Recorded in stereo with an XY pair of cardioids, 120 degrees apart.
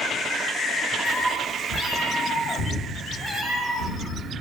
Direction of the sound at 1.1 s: 45° left.